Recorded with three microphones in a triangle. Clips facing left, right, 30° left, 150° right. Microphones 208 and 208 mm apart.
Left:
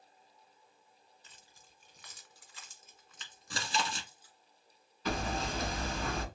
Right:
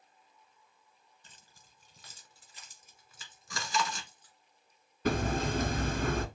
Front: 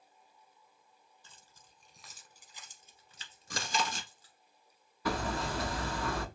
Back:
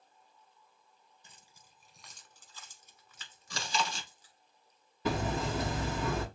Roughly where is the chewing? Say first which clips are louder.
Right 2 dB, even; ahead left.